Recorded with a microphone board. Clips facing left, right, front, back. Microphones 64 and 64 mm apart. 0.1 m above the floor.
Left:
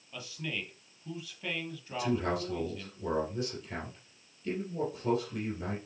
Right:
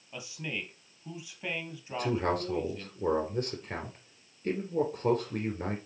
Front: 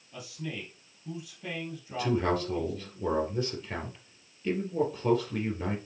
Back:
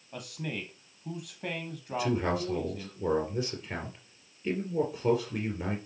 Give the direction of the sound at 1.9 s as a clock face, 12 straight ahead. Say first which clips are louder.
Right 2 dB, front 1 dB; 3 o'clock.